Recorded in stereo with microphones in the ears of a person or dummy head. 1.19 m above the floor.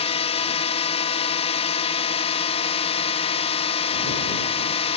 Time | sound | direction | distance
0.0 | a drone | 30° left (ahead or behind) | ?